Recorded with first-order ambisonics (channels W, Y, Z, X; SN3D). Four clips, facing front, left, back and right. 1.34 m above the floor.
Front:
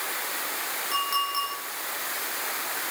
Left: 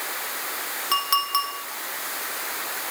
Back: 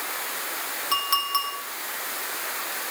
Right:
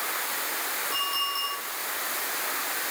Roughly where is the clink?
Behind left.